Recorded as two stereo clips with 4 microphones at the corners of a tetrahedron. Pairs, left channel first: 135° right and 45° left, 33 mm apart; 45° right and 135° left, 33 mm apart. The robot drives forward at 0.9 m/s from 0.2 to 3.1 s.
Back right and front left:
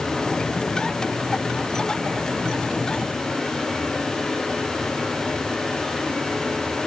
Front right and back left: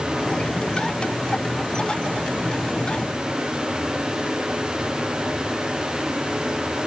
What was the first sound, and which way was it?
Only background noise.